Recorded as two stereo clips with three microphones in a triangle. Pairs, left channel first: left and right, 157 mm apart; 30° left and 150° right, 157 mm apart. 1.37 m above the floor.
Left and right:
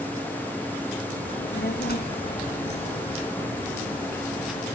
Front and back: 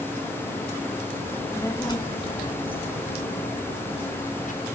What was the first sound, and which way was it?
A child speaking, 110° left.